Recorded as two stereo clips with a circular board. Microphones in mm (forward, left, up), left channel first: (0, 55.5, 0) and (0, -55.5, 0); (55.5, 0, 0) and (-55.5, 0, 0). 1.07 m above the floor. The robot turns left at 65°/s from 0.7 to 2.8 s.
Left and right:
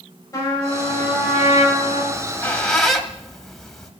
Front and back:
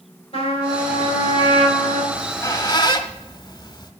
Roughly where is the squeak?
Ahead left.